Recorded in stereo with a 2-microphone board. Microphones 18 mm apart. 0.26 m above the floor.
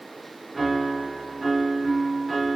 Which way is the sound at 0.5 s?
5° right (ahead or behind).